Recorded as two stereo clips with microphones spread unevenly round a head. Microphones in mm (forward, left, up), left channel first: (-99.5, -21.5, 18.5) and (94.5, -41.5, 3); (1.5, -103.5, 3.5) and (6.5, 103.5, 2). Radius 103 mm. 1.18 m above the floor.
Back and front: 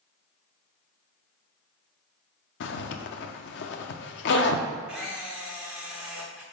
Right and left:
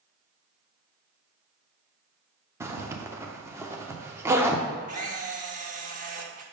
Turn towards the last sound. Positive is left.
turn(degrees=80)